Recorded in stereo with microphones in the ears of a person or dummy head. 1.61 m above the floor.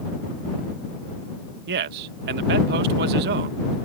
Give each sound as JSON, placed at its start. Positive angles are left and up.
{"t": 1.7, "sound": "a man speaking", "side_deg": -55}